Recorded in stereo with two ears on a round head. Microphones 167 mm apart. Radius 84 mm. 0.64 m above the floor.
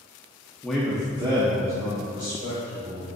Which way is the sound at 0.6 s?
5° left (ahead or behind).